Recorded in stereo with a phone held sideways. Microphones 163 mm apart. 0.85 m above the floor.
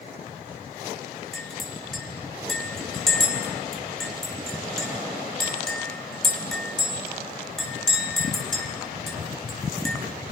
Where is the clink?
Centre (ahead or behind), 3.5 m.